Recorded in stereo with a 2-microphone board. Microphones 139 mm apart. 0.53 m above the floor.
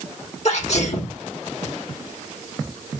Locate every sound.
0.5 s a sneeze: 55° left (ahead or behind), 1.6 m